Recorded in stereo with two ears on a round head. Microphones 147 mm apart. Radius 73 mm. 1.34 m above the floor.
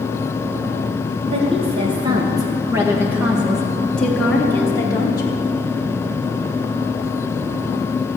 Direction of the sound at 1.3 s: 40° right (ahead or behind).